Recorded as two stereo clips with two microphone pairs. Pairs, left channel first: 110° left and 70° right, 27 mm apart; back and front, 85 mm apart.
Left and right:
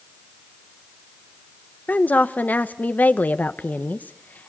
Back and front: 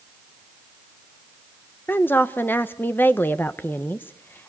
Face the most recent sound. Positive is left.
turn(degrees=115)